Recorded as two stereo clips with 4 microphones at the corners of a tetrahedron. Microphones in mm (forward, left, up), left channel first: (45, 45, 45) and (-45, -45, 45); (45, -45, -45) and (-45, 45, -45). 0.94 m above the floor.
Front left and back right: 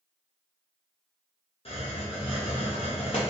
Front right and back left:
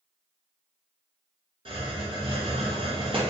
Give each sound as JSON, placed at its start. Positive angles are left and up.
{"t": 1.6, "sound": "a hiss", "azimuth_deg": 85, "distance_m": 0.7}